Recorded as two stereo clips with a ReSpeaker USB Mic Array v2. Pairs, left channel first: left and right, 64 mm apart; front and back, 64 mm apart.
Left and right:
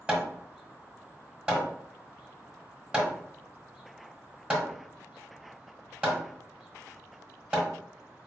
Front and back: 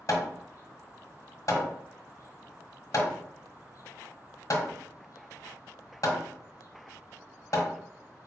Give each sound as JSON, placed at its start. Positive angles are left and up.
{"t": 0.1, "sound": "hammering", "azimuth_deg": -20, "distance_m": 1.0}